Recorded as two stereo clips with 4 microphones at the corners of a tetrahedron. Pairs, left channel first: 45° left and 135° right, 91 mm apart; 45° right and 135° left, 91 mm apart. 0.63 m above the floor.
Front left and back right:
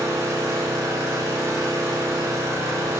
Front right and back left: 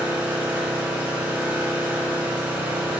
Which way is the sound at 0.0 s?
170° right.